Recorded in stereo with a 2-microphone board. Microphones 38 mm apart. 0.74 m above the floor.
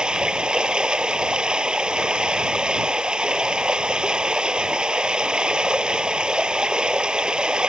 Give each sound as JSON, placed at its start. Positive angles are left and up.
{"t": 0.0, "sound": "running water", "side_deg": -20}